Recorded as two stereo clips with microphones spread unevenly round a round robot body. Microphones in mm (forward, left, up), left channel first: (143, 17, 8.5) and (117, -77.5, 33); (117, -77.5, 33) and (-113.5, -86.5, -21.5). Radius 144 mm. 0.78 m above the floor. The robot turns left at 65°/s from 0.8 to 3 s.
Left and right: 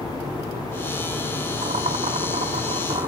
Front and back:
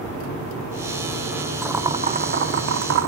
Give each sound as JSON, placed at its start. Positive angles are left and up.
{"t": 1.6, "sound": "boiling", "azimuth_deg": -90, "distance_m": 0.8}